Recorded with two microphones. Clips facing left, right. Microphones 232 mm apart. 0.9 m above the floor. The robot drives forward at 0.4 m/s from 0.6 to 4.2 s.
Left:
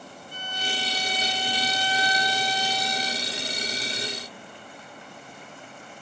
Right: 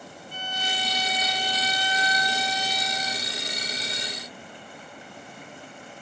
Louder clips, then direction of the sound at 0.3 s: Even; 60° left (ahead or behind).